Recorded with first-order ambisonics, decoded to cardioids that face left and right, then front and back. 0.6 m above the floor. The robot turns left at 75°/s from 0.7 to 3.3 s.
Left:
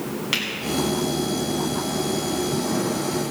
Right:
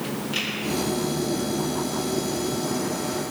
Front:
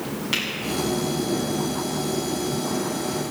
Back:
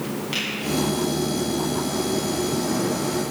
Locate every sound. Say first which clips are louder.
0.3 s a finger snap: left 4 dB, front 2 dB; 75° left, 5.5 m